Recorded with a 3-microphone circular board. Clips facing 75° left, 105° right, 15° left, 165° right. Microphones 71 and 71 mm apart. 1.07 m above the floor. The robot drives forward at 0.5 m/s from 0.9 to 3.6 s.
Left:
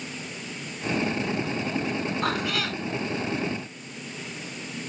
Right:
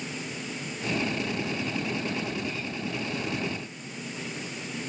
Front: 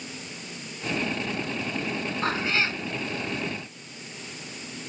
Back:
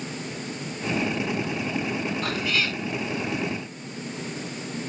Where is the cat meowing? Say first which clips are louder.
Left 6 dB, front 1 dB; 75° left; by 2.8 s 80° left.